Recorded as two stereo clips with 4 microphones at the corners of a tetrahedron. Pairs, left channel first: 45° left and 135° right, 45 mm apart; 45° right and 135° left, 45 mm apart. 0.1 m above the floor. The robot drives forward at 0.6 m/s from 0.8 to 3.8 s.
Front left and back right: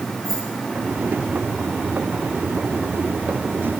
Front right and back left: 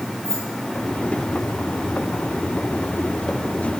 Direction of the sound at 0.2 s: 25° right.